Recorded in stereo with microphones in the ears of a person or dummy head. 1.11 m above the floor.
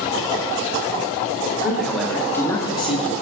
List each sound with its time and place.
1.6 s a man speaking: 5° right (ahead or behind), 2.5 m; by 3.1 s 30° left (ahead or behind), 1.5 m